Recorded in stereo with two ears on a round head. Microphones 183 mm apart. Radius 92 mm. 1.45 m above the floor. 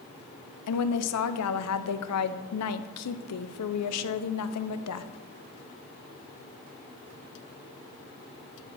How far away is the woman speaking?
About 0.5 m.